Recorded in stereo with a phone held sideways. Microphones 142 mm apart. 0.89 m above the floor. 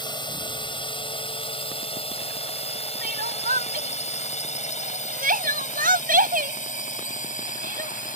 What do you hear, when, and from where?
0.0 s a drone: 35° left (ahead or behind); by 8.2 s 70° left (ahead or behind)
3.0 s crying: 85° right